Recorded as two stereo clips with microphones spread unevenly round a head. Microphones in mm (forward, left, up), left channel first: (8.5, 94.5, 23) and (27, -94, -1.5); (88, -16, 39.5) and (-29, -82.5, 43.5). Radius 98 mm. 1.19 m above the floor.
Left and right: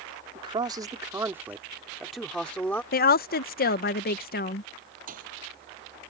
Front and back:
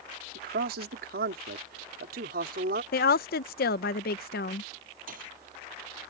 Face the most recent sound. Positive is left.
turn(degrees=-135)